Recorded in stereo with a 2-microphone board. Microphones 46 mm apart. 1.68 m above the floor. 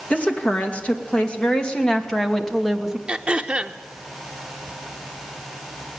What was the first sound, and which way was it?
A woman speaking, 30° left (ahead or behind).